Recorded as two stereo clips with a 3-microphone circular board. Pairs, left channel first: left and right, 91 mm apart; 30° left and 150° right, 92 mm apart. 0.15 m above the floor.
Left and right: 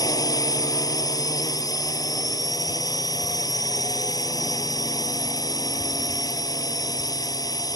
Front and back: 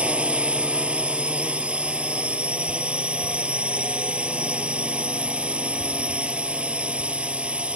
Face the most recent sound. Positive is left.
turn(degrees=135)